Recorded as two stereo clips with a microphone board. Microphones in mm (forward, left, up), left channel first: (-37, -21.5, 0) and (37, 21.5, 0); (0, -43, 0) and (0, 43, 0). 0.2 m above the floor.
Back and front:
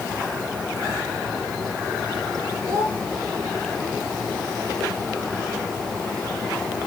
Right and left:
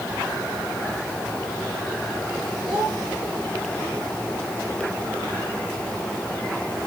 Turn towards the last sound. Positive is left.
turn(degrees=85)